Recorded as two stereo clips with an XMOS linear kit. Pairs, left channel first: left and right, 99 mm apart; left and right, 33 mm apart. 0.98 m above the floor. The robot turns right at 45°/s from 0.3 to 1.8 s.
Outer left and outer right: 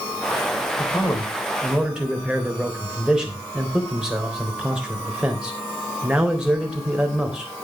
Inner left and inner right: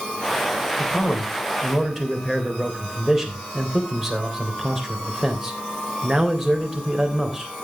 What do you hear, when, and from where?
0.8 s a man speaking: 140° left, 3.5 m; by 7.5 s 175° right, 3.5 m